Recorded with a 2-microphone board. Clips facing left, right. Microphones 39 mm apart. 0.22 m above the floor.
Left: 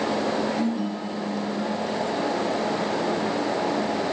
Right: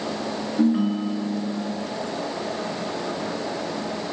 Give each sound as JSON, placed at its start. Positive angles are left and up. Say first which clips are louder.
{"t": 0.6, "sound": "a ringtone", "louder": "right 5 dB", "side_deg": -65, "distance_m": 2.0}